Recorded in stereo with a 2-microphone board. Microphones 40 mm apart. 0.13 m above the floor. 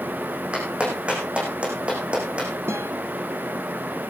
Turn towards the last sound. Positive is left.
turn(degrees=-80)